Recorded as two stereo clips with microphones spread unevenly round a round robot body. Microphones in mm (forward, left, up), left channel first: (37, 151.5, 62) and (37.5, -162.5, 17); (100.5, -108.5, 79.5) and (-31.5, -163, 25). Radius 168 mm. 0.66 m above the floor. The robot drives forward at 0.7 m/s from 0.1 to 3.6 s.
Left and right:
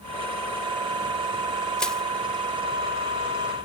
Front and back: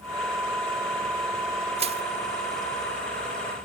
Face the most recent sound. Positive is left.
turn(degrees=180)